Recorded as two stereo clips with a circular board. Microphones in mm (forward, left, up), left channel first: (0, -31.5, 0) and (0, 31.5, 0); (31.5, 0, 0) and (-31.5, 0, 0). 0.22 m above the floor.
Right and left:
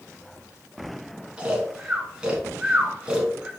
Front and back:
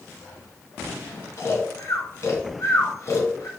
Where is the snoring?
20° left, 1.2 m.